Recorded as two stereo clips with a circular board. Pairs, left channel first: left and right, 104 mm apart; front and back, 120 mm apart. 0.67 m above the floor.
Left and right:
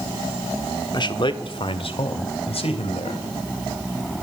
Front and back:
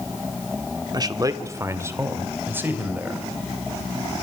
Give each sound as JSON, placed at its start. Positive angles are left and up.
{"t": 0.9, "sound": "a man speaking", "azimuth_deg": 130, "distance_m": 1.2}